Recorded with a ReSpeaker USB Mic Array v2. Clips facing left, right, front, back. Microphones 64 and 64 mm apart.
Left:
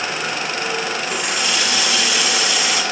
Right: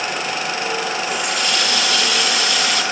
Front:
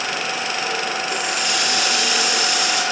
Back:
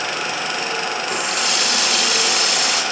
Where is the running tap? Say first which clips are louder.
Right 1 dB, back 1 dB; 175° left, 2.5 m.